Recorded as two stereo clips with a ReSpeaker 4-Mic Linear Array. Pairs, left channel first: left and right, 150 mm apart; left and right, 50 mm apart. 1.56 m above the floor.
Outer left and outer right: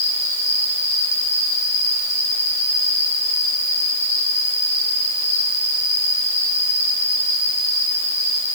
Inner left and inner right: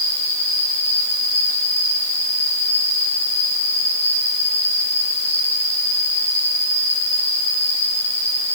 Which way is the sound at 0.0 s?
15° left (ahead or behind).